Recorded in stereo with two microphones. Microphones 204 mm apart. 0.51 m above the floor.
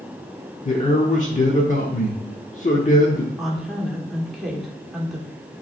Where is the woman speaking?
Centre (ahead or behind), 1.5 m.